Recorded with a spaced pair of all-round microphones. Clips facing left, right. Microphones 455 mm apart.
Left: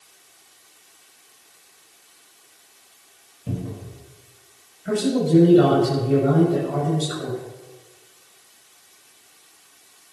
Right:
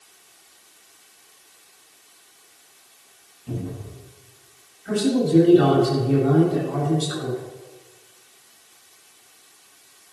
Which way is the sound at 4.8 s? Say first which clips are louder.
Even; 70° left (ahead or behind).